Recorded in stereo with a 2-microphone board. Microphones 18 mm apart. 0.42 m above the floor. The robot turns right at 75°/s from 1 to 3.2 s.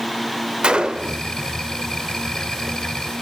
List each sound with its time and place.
0.6 s a gunshot: 60° right (ahead or behind), 0.5 m; by 1.2 s 55° right (ahead or behind), 0.5 m